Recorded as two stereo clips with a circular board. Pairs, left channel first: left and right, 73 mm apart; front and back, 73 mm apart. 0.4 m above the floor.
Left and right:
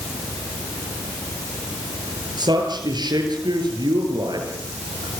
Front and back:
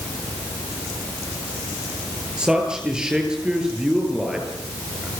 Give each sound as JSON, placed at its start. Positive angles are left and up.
{"t": 2.4, "sound": "a man speaking", "azimuth_deg": -100, "distance_m": 9.0}